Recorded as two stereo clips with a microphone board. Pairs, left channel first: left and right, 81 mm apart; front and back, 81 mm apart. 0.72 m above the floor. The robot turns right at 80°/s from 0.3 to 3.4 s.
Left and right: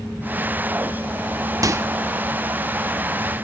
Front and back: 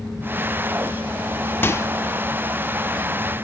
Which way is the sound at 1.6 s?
55° right.